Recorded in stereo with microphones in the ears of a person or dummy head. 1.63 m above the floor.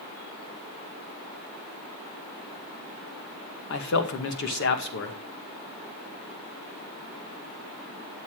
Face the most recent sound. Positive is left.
turn(degrees=60)  # may be behind; listen again after turning